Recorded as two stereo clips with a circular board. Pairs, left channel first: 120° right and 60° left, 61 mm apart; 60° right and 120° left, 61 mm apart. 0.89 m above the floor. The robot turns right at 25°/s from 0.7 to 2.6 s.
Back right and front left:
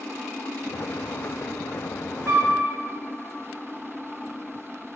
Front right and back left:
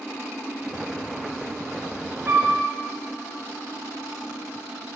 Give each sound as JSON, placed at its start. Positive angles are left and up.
{"t": 2.3, "sound": "a flute", "azimuth_deg": 85, "distance_m": 3.0}